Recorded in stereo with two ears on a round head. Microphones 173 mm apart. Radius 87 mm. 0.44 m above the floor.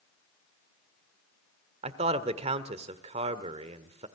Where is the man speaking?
35° right (ahead or behind), 1.4 m.